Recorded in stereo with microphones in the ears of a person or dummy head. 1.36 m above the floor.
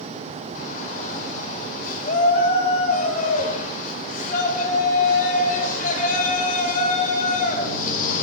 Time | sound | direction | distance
0.6 | a shout | 55° left (ahead or behind) | 5.5 m